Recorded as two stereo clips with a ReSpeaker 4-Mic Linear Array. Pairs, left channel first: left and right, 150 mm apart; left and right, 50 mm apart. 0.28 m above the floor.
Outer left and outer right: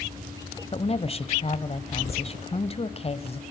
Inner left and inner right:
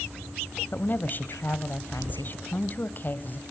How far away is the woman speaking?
About 1.1 m.